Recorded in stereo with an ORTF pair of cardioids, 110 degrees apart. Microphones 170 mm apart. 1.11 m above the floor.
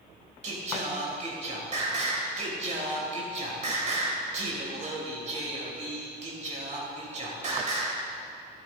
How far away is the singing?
About 2 m.